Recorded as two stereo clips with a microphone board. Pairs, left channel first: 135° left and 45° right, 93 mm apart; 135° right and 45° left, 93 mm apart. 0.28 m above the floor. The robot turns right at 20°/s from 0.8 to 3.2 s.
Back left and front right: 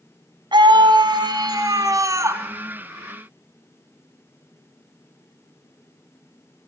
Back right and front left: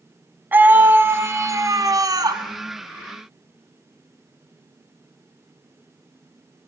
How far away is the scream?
About 2 m.